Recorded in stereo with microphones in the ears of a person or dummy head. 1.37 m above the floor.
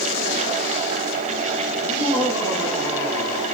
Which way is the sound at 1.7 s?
30° right (ahead or behind).